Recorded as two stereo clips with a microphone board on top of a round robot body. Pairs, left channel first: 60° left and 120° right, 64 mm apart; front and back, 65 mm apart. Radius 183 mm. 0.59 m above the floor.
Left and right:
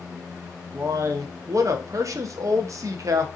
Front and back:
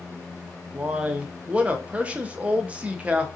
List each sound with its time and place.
0.7 s a man speaking: 115° right, 0.8 m